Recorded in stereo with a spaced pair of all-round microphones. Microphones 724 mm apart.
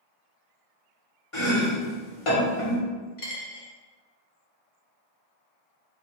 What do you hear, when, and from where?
1.3 s chopping: 45° left (ahead or behind), 1.2 m
3.2 s a dropped coin: 50° left (ahead or behind), 0.8 m